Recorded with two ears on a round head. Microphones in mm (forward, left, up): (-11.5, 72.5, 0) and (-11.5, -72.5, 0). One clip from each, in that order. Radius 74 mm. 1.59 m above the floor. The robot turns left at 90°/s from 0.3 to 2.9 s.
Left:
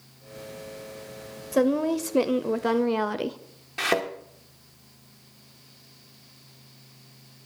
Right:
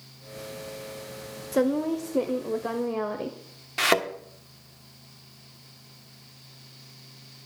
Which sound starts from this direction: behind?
A woman speaking, at 1.5 s.